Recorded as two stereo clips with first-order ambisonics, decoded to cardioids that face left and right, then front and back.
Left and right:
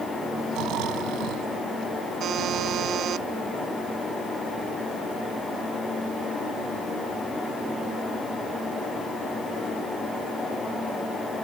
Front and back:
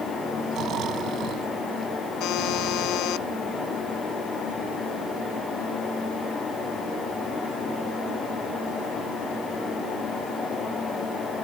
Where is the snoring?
130° right.